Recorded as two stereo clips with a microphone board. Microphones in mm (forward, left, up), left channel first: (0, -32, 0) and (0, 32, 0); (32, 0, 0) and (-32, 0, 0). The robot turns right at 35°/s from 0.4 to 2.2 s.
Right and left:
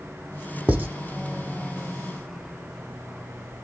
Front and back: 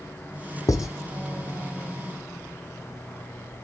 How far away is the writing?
About 0.9 m.